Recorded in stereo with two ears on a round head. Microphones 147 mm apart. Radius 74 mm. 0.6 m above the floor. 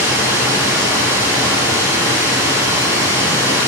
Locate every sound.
0.0 s running water: 15° right (ahead or behind), 2.5 m